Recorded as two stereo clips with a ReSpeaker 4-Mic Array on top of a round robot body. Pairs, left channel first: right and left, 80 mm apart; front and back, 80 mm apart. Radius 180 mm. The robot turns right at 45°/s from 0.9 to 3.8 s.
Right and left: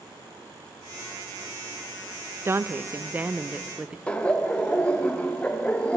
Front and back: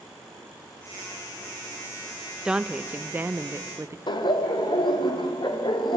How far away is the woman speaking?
About 1.2 m.